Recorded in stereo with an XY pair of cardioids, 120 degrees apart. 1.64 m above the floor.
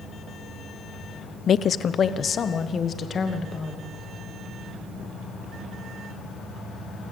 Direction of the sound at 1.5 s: 45° left.